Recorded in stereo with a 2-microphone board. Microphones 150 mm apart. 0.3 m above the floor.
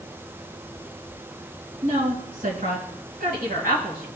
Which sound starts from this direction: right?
A woman speaking, at 1.8 s.